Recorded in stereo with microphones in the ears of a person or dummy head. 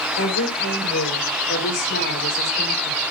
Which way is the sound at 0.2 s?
80° left.